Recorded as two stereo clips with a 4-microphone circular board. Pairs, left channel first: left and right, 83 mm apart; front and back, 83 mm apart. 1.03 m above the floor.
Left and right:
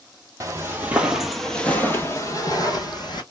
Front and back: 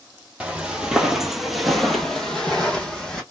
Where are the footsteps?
110° right, 1.2 m; by 3.2 s 80° left, 1.8 m.